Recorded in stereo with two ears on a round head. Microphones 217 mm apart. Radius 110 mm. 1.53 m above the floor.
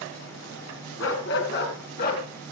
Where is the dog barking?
55° left (ahead or behind), 3.5 m; by 2.2 s 35° left (ahead or behind), 4 m.